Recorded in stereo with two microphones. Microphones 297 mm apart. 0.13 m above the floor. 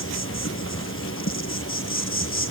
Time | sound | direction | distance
0.0 | an insect | 45° left (ahead or behind) | 1.3 m